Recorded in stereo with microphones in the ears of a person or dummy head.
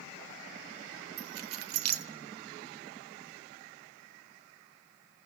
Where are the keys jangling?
80° right, 1.2 m.